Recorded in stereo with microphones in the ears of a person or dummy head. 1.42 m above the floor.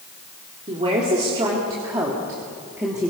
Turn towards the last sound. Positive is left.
turn(degrees=-5)  # may be behind; listen again after turning